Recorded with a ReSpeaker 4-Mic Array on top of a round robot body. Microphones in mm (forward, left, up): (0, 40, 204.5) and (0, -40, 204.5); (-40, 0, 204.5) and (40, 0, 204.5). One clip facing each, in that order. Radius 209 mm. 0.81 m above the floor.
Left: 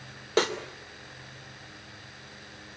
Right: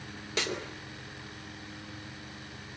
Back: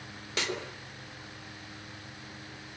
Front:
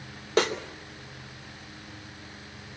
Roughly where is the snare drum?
Ahead left.